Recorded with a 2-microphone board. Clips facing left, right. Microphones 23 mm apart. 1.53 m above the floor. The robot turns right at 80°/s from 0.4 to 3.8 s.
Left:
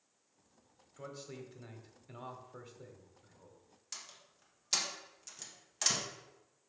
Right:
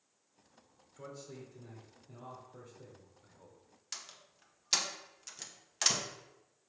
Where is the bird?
I don't hear a bird.